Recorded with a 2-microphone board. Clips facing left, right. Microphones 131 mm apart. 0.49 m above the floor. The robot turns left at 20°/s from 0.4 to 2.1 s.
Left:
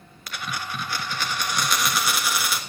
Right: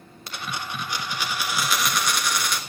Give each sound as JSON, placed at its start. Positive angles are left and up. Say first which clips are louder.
{"t": 0.3, "sound": "a dropped coin", "louder": "even", "azimuth_deg": -150, "distance_m": 1.3}